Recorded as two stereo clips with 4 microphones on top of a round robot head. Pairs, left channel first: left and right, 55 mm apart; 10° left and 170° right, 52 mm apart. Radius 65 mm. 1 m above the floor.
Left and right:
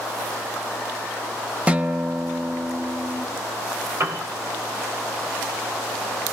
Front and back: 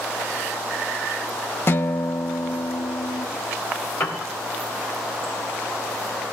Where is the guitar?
25° right, 1.0 m.